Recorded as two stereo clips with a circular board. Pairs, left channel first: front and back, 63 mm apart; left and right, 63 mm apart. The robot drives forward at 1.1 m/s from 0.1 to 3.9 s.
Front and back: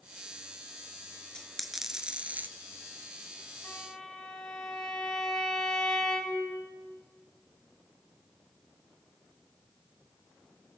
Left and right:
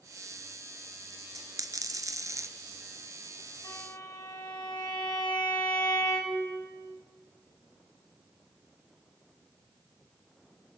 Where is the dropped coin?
75° right, 1.6 m; by 2.5 s 125° right, 1.8 m.